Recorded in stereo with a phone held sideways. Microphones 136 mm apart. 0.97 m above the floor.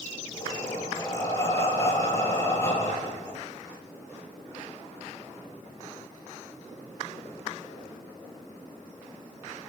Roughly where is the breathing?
Left.